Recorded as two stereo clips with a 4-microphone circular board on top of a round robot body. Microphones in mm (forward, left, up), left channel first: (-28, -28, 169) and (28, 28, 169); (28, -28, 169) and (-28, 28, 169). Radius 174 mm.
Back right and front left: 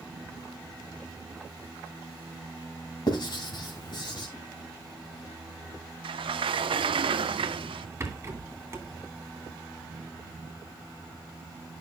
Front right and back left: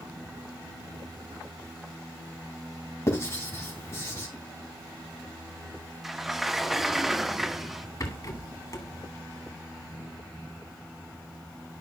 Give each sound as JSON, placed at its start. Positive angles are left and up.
{"t": 3.1, "sound": "writing", "azimuth_deg": -100, "distance_m": 2.5}
{"t": 6.0, "sound": "a sliding door", "azimuth_deg": 50, "distance_m": 0.5}
{"t": 8.0, "sound": "a rattle", "azimuth_deg": -10, "distance_m": 2.5}